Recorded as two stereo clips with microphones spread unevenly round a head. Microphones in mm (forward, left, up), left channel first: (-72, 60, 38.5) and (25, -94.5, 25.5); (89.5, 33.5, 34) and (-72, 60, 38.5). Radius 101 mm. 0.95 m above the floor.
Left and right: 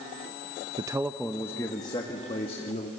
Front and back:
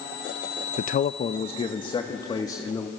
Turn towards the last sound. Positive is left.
turn(degrees=60)